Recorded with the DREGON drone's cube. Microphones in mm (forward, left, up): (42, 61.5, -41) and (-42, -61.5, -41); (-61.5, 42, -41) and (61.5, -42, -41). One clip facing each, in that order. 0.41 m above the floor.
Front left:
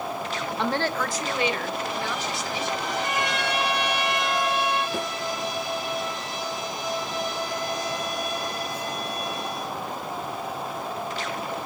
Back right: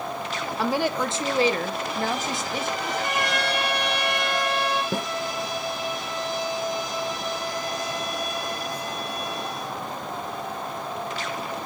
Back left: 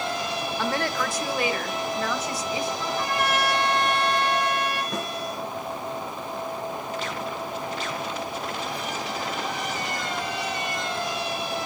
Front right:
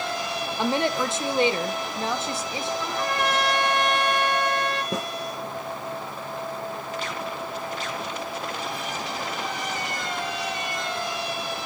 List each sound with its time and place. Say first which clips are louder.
0.6 s a woman speaking: back right 2 dB, front right 4 dB; 45° right, 0.7 m; by 2.7 s 95° right, 1.8 m
2.8 s a trumpet: even, even; 130° right, 5.5 m
4.9 s a snare drum: back right 1 dB, front right 1 dB; 95° right, 5.5 m